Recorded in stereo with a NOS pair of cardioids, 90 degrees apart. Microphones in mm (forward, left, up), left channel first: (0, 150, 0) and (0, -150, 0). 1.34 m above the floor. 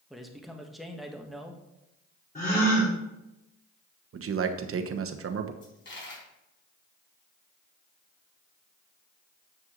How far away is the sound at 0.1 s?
About 1.7 m.